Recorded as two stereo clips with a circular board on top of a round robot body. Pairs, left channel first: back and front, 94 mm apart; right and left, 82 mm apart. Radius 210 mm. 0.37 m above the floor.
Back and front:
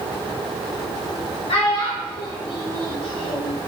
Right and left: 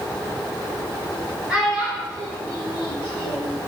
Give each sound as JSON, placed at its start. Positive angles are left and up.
{"t": 1.5, "sound": "a child speaking", "azimuth_deg": 170, "distance_m": 1.2}